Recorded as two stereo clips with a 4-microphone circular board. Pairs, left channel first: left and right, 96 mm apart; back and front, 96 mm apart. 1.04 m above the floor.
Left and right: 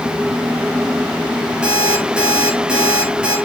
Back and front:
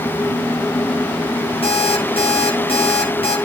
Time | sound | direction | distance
1.6 | an alarm clock | 170° right | 10 m